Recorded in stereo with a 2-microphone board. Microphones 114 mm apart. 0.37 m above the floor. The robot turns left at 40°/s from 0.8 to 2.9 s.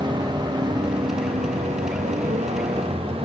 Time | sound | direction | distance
0.0 | a vehicle | 40° right | ?